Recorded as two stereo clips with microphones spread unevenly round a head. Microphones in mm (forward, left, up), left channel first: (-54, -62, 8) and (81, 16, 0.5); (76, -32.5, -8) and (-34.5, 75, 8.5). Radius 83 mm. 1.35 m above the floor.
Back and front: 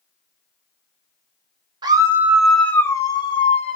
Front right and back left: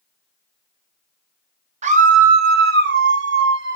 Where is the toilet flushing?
I don't hear a toilet flushing.